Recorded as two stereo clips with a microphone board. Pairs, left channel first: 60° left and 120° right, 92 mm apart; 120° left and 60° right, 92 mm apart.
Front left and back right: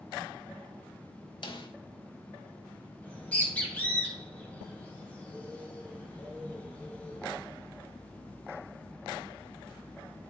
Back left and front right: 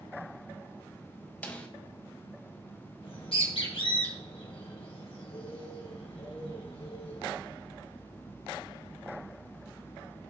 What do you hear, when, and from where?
1.4 s a snare drum: 45° left, 1.2 m
3.0 s a bird: 135° left, 2.5 m